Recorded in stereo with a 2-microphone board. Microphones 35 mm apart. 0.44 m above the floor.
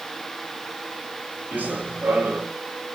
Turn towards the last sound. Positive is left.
turn(degrees=-75)  # may be behind; listen again after turning